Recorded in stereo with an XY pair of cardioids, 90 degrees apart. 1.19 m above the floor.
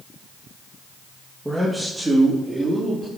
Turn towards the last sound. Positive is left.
turn(degrees=-25)